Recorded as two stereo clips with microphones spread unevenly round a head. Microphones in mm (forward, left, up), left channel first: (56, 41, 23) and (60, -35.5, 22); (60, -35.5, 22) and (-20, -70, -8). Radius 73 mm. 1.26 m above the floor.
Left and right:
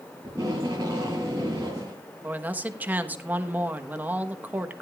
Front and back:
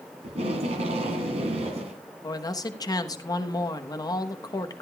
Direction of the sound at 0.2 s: 155° right.